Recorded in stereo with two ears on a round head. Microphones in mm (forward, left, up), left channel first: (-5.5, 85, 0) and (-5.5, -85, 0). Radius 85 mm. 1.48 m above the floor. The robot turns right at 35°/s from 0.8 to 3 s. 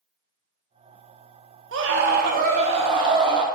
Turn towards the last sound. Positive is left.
turn(degrees=-25)